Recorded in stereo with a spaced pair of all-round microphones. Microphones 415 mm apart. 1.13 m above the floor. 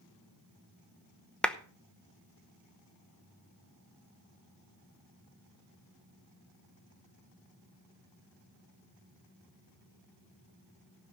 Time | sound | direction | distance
1.4 | a clap | centre (ahead or behind) | 0.8 m